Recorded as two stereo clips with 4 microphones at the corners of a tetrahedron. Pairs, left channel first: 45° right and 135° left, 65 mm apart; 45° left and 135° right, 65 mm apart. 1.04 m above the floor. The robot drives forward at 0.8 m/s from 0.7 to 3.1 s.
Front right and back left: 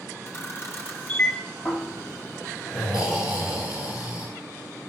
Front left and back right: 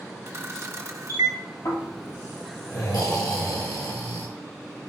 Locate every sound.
0.3 s a camera shutter: 90° right, 1.4 m; by 1.4 s 115° right, 1.5 m
1.6 s snoring: 45° left, 5 m; by 4.3 s 55° left, 4.5 m